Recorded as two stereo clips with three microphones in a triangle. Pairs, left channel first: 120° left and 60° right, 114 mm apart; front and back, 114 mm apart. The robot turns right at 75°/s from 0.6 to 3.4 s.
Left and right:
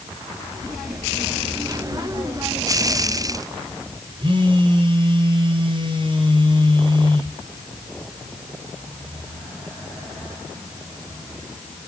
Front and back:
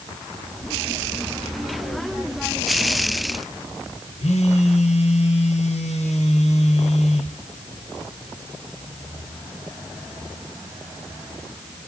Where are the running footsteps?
I don't hear running footsteps.